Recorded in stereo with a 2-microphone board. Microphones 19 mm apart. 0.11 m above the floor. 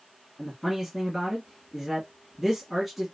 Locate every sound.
0.4 s a man speaking: 10° right (ahead or behind), 1.7 m